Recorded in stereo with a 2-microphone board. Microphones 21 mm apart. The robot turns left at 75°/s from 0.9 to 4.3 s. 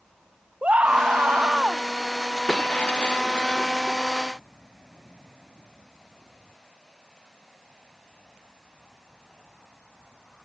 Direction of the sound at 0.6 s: 65° right.